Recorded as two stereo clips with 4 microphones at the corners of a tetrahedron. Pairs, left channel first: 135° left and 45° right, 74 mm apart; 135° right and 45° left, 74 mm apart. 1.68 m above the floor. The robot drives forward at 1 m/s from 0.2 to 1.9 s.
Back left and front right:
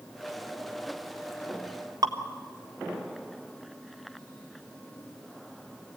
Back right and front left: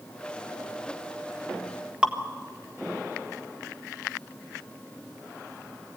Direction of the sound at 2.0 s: 25° right.